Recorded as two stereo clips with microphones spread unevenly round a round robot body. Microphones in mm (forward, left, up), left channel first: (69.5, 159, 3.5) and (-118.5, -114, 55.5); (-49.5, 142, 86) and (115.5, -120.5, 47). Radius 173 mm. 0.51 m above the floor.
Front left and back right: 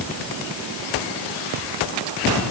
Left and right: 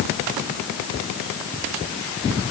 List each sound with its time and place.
Only background noise.